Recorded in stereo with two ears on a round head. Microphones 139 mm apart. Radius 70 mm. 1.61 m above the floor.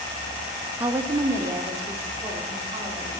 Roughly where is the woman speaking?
Centre.